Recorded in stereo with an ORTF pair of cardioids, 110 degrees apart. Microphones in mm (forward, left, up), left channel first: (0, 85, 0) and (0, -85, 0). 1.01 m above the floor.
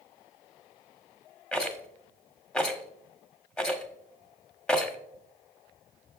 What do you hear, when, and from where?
1.5 s a rattle: 5° left, 1.1 m